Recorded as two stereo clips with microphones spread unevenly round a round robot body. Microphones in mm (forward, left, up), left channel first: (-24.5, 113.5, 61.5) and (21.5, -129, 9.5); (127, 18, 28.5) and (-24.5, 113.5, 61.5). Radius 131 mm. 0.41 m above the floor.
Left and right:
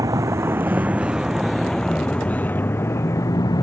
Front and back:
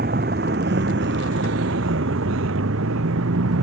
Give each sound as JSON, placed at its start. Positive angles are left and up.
{"t": 0.0, "sound": "a vehicle", "azimuth_deg": -155}